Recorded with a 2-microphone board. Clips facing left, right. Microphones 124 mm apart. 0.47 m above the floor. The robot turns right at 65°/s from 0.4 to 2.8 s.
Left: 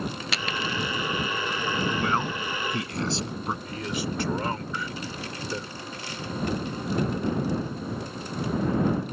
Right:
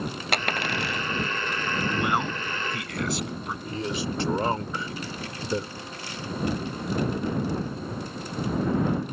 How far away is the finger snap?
No finger snap in this recording.